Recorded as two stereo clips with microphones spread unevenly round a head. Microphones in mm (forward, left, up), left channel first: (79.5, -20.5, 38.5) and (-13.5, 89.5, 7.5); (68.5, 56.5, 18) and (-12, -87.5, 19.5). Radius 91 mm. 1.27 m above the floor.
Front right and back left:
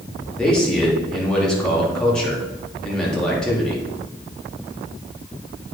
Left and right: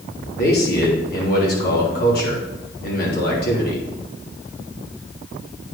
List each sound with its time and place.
0.4 s a man speaking: 35° left, 3 m